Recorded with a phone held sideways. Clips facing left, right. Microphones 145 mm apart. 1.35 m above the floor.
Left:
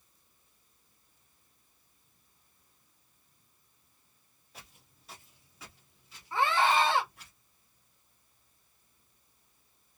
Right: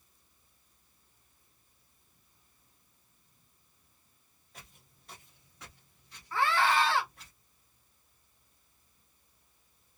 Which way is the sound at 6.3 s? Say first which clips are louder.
Left 1 dB; 20° left (ahead or behind).